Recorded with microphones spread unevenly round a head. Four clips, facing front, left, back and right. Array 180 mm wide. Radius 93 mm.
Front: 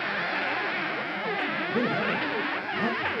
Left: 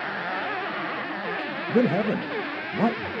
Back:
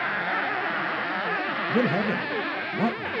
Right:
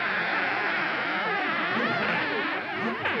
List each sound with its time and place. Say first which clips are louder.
1.7 s a man speaking: left 11 dB, back 4 dB; 105° left, 1.8 m